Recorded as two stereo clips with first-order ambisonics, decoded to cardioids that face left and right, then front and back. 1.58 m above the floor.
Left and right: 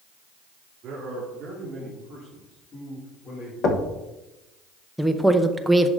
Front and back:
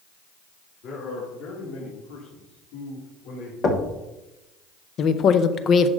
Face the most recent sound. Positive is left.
turn(degrees=-5)